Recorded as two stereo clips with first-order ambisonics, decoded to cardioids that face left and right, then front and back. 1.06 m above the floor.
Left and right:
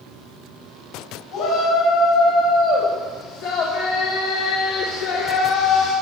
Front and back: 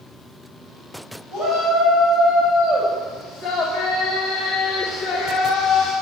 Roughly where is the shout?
Behind left.